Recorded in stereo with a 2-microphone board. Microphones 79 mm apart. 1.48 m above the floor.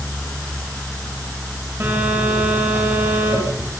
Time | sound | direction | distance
1.8 | a phone buzzing | 30° right (ahead or behind) | 9.5 m